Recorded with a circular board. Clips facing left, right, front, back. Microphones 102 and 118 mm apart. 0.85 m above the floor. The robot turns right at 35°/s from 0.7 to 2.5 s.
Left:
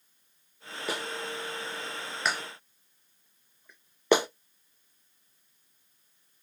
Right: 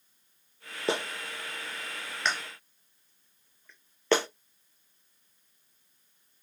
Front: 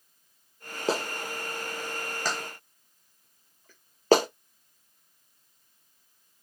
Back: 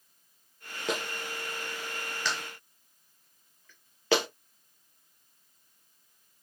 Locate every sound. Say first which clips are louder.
0.9 s a clap: right 3 dB, front 4 dB; 40° right, 0.6 m; by 4.3 s 20° left, 0.6 m